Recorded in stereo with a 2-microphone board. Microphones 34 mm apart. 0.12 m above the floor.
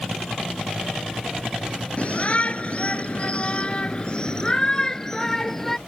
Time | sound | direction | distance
2.0 | a shout | 40° left (ahead or behind) | ?